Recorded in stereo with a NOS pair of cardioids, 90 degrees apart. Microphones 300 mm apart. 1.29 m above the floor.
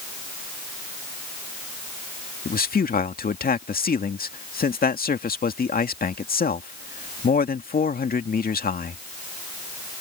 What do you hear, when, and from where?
2.5 s a man speaking: 30° left